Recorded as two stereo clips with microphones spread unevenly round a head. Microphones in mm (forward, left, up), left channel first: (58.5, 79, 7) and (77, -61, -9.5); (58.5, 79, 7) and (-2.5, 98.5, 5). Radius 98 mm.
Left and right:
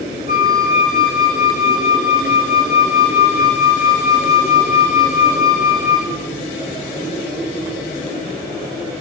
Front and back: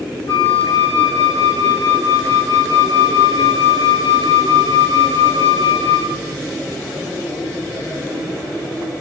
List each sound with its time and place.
0.3 s a flute: 40° right, 2.5 m